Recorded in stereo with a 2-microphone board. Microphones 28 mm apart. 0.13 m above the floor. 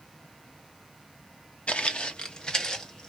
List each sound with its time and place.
1.7 s footsteps: 50° left (ahead or behind), 0.8 m; by 3.1 s 20° left (ahead or behind), 1.4 m